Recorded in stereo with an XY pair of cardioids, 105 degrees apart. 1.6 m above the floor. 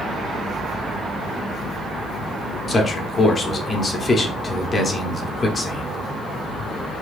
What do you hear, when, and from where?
2.7 s a man speaking: 30° left, 0.9 m